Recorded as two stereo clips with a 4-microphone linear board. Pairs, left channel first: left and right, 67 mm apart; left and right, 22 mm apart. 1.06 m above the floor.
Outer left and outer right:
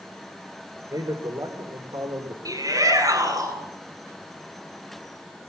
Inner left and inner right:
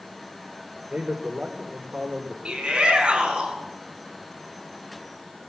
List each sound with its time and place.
0.9 s a man speaking: 75° right (ahead or behind), 3.5 m; by 2.4 s 85° right, 2.5 m
2.5 s a shout: 60° right (ahead or behind), 9.5 m